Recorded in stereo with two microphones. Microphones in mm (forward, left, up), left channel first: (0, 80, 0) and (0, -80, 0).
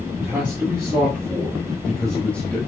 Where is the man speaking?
10° right (ahead or behind), 4 m; by 2.6 s 10° left (ahead or behind), 3 m.